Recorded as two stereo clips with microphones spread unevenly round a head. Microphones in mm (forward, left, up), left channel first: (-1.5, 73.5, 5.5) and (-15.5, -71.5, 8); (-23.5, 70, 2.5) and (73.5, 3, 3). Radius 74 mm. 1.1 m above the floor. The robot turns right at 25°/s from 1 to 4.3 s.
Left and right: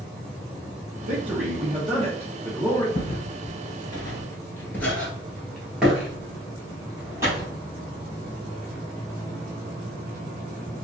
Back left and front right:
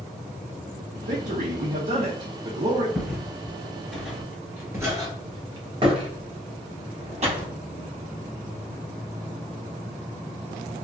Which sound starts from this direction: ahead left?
Footsteps, at 3.0 s.